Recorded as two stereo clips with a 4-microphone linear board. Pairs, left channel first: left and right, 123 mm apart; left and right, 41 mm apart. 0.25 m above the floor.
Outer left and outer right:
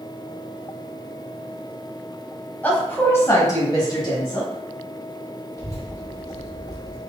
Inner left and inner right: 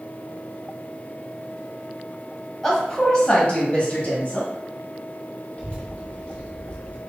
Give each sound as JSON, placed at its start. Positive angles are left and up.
{"t": 2.6, "sound": "a woman speaking", "side_deg": 15, "distance_m": 1.4}
{"t": 5.6, "sound": "a child speaking", "side_deg": 30, "distance_m": 1.8}